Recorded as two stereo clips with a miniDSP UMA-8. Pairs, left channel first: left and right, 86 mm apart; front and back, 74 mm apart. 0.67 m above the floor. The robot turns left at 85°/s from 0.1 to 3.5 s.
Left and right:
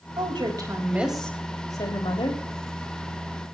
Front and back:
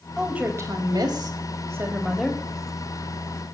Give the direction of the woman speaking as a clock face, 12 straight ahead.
3 o'clock.